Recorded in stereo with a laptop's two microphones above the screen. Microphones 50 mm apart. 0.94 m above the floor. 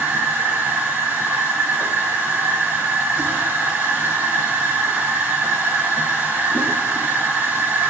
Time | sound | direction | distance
0.0 | a machine running | 30° right (ahead or behind) | 1.5 m